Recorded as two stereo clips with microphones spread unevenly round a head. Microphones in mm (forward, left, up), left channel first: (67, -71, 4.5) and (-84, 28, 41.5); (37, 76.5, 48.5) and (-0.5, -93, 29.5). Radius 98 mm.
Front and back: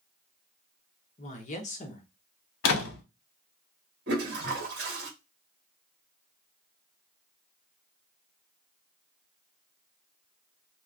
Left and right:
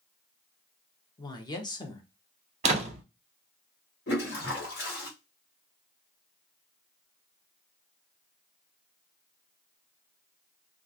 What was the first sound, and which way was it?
A woman speaking, 10° left.